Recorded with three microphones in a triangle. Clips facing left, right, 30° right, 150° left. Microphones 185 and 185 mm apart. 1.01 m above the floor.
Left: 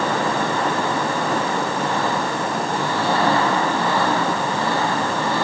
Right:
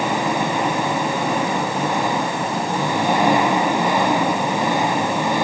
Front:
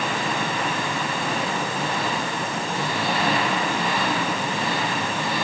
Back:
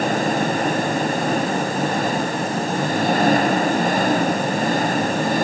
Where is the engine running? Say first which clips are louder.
Right 1 dB, back 7 dB; 165° right.